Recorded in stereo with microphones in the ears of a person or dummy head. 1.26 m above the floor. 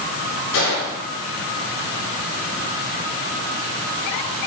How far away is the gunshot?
About 5.5 m.